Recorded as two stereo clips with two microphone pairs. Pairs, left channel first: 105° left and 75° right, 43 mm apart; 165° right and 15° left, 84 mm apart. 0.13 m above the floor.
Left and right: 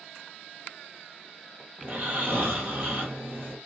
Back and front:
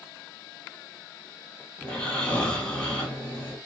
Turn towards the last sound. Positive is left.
turn(degrees=-90)